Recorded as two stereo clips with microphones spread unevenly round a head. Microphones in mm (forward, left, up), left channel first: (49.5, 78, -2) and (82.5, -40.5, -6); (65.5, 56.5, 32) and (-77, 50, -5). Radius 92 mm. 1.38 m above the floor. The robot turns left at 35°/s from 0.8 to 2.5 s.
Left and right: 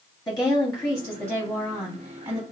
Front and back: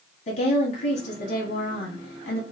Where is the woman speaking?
35° left, 0.9 m; by 2.4 s 20° right, 0.9 m.